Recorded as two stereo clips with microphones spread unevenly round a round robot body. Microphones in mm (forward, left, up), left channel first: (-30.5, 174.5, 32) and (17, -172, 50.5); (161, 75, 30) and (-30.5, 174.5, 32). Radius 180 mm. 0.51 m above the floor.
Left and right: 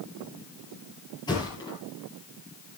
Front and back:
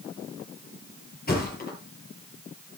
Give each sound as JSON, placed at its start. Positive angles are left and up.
{"t": 1.3, "sound": "a thud", "azimuth_deg": 20, "distance_m": 6.5}